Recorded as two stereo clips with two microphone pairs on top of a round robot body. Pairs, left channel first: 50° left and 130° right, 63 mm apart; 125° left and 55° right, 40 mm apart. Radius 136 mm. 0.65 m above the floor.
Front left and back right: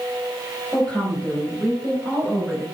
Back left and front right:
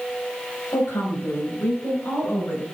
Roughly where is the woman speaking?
Behind left.